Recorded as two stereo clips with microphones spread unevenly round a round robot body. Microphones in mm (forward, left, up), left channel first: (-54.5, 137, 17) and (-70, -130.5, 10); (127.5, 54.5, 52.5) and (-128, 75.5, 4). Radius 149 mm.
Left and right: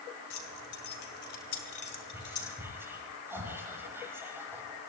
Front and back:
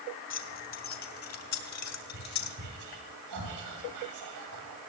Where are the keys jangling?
40° left, 3 m; by 2.6 s 5° left, 2 m.